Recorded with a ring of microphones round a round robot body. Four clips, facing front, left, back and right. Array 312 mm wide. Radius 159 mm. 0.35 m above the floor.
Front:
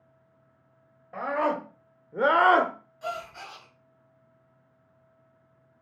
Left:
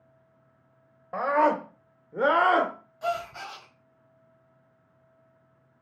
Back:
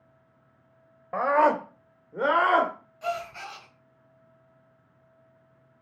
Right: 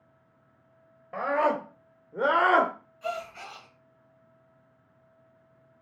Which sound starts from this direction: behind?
A scream, at 1.1 s.